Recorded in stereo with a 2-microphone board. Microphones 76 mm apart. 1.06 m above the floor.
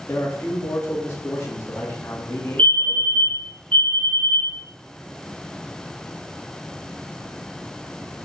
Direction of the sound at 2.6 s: 20° left (ahead or behind).